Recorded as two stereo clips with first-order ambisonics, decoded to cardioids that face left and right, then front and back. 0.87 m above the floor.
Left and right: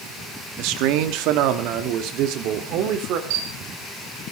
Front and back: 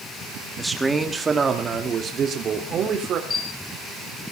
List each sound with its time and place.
0.6 s a man speaking: 95° right, 1.8 m; by 3.2 s 125° right, 3 m
3.3 s a camera shutter: 75° right, 3.5 m